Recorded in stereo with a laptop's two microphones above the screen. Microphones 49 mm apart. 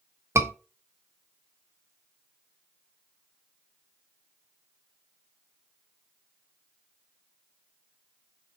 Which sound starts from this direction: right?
A scream, at 0.3 s.